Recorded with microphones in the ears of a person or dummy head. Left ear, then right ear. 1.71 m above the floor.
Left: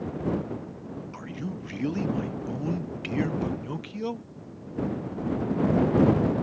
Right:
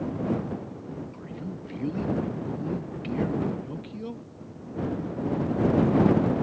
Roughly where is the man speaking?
Left.